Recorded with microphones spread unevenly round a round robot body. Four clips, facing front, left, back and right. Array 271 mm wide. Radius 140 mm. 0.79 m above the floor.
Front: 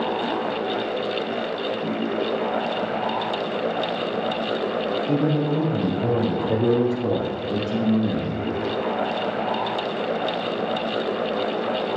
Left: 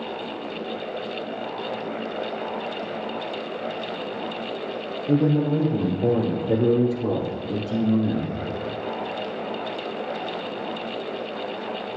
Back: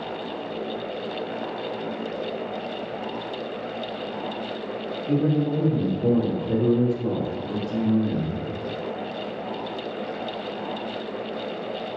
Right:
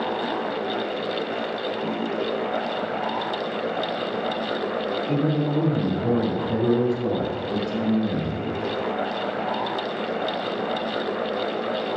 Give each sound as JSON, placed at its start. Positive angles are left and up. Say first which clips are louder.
{"t": 5.1, "sound": "a man speaking", "louder": "left 5 dB, back 2 dB", "azimuth_deg": 110, "distance_m": 4.0}